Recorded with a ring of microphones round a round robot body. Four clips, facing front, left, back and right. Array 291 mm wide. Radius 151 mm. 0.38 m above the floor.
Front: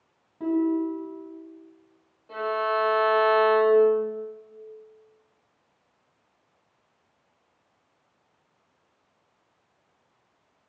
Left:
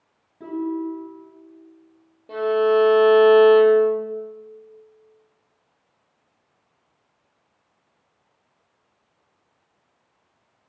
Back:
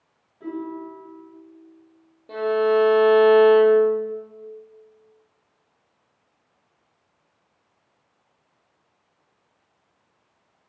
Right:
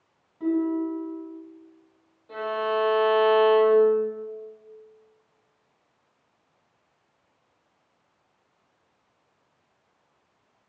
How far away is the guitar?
About 3 m.